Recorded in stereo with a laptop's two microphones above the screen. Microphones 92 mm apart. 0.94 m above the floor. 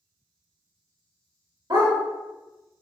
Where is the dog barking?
50° right (ahead or behind), 1.6 m.